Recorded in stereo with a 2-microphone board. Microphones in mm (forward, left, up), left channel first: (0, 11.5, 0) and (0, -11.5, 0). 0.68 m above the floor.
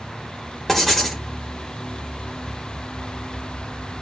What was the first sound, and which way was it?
Writing, 5° left (ahead or behind).